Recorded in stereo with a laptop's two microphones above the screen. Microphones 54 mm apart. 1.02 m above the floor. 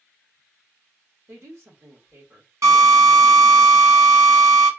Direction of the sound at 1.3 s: 50° right (ahead or behind).